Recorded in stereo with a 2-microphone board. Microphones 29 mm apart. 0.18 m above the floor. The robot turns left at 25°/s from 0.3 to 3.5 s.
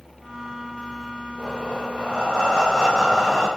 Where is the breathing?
70° left, 2 m; by 3.5 s 20° left, 2 m.